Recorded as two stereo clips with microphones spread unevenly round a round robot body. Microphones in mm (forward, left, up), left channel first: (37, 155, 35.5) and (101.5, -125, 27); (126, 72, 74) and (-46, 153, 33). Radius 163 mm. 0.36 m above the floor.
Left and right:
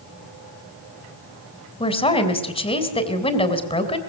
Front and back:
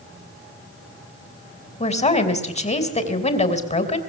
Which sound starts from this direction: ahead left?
A woman speaking, at 1.8 s.